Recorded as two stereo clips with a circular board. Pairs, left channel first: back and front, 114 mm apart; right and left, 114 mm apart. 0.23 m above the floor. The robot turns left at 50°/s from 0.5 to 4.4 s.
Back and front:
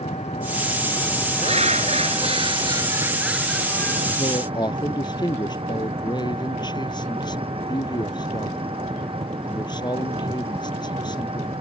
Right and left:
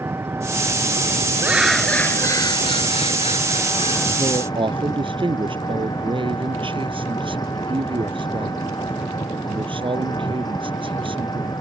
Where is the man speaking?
140° left; by 11.5 s 130° left.